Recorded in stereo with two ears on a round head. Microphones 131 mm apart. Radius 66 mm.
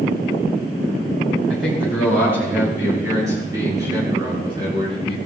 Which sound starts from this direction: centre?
A man speaking, at 1.5 s.